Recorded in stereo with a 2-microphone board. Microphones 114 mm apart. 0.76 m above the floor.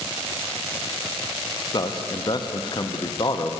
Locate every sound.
1.7 s a man speaking: 40° left (ahead or behind), 0.5 m